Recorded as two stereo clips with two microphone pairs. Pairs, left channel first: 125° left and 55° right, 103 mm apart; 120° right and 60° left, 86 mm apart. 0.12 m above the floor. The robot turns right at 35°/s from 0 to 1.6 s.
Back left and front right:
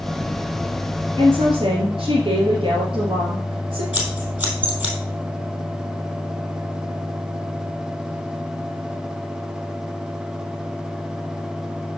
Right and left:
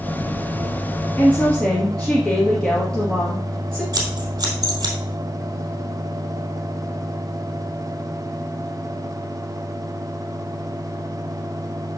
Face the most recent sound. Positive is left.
turn(degrees=20)